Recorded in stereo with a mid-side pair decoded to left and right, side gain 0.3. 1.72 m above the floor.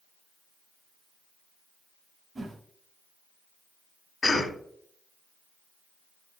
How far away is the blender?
I don't hear a blender.